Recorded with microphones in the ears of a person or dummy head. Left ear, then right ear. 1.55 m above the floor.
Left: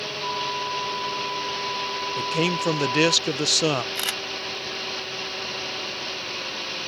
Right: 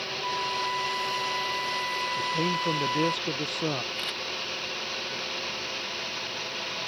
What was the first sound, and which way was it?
A flute, 25° right (ahead or behind).